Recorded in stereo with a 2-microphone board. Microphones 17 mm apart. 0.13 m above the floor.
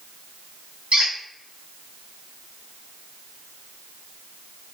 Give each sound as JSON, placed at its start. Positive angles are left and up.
{"t": 0.9, "sound": "a squeak", "side_deg": -70, "distance_m": 1.4}